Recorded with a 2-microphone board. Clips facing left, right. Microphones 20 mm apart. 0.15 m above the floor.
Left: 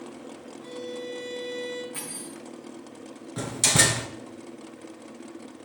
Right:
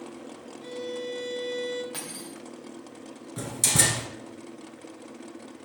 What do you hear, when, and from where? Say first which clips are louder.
0.6 s a violin: right 2 dB; 20° right (ahead or behind), 1.4 m
1.9 s cutlery clinking: even; 55° right (ahead or behind), 3 m
3.4 s a door slam: left 3 dB; 20° left (ahead or behind), 1.3 m